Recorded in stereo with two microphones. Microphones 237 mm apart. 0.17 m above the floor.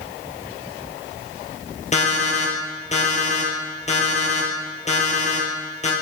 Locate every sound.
1.9 s an alarm clock: 30° left (ahead or behind), 2.5 m